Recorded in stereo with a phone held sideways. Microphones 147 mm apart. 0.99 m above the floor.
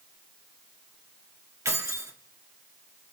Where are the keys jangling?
20° right (ahead or behind), 1.1 m.